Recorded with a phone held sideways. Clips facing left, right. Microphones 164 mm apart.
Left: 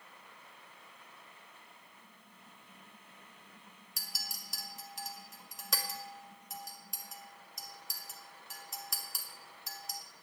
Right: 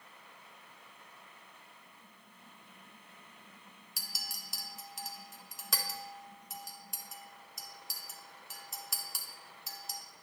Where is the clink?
Centre (ahead or behind), 0.8 m.